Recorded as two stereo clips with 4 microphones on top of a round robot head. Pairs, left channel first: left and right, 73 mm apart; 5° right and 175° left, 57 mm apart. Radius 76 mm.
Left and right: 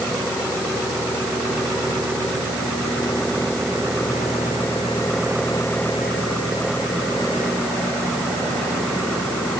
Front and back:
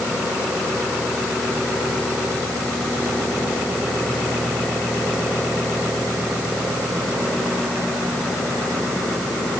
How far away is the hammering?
I don't hear hammering.